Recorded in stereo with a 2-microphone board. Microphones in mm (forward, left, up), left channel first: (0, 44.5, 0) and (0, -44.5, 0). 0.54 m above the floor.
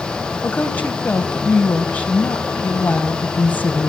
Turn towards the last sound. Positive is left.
turn(degrees=15)  # may be behind; listen again after turning